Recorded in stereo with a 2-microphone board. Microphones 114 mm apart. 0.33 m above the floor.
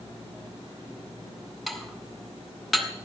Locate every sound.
1.7 s dishes clattering: centre (ahead or behind), 2 m